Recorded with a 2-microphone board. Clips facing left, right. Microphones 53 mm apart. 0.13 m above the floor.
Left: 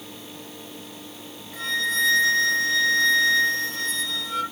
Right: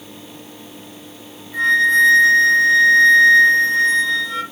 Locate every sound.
1.5 s a flute: 25° right (ahead or behind), 4.5 m